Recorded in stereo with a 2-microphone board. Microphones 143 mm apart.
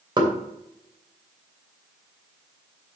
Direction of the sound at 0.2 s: 35° right (ahead or behind).